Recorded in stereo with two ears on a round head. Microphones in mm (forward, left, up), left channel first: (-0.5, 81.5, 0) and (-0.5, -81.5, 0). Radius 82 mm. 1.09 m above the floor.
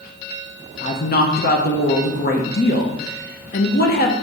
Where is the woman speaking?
55° left (ahead or behind), 1.0 m.